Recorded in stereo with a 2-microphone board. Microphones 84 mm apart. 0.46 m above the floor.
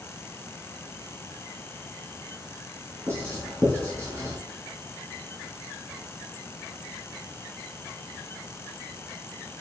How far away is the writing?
About 4 m.